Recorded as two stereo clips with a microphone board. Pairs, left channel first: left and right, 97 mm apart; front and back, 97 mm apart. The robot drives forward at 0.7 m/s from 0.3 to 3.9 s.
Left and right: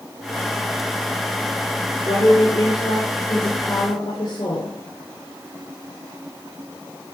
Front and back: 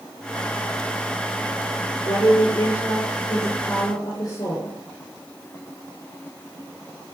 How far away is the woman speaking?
About 8 m.